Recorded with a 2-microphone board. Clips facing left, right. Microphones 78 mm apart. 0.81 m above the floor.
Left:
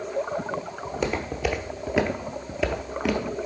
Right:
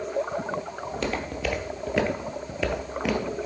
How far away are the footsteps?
About 1.1 m.